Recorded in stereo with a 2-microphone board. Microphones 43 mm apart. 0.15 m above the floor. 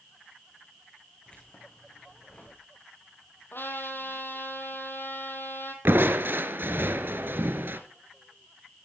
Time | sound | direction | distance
1.3 | keys jangling | 25° left (ahead or behind) | 7.5 m
3.5 | a trumpet | 60° left (ahead or behind) | 4 m
5.8 | crushing | 60° right (ahead or behind) | 2.5 m